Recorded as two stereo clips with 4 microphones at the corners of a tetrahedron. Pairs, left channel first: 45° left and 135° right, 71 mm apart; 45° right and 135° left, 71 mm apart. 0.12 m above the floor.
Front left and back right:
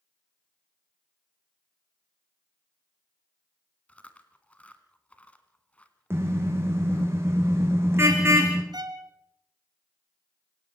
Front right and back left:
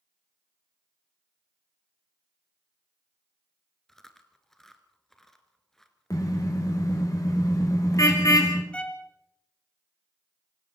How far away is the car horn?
About 4 m.